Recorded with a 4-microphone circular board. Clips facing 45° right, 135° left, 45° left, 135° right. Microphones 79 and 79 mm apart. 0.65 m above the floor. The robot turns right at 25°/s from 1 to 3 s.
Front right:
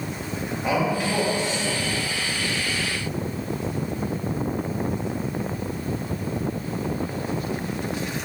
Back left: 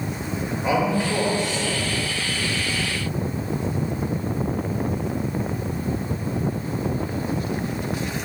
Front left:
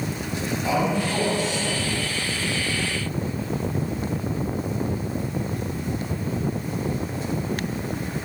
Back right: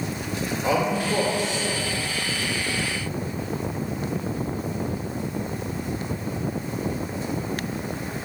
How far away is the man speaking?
About 2 m.